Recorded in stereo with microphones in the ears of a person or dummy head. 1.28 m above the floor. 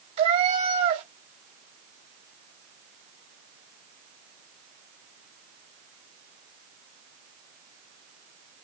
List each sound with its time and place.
0.2 s a cat meowing: 35° right (ahead or behind), 1.2 m